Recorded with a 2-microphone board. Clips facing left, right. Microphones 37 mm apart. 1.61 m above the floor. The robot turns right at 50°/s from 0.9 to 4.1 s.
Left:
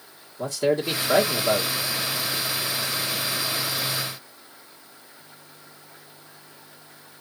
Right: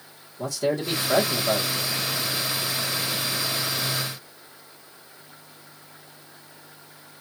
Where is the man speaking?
25° left, 1.9 m; by 1.7 s 65° left, 1.9 m.